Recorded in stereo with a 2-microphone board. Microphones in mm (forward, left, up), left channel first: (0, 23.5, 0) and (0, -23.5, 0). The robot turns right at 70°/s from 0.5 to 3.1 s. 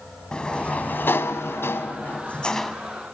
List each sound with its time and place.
0.3 s a sliding door: 20° left, 1.2 m; by 2.8 s straight behind, 1.2 m